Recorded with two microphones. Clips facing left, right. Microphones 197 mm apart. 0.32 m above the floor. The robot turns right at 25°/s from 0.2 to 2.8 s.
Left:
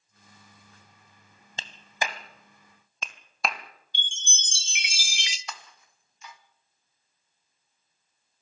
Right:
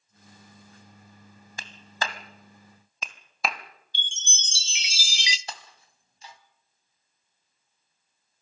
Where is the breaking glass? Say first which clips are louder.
Right 1 dB; 30° right (ahead or behind), 1.5 m.